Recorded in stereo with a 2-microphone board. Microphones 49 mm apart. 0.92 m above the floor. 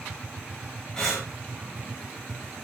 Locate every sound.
1.0 s breathing: 15° left (ahead or behind), 3.5 m